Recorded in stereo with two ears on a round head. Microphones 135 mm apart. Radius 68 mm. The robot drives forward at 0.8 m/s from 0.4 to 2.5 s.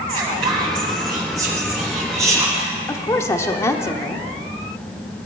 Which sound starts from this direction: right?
Whispering, at 0.1 s.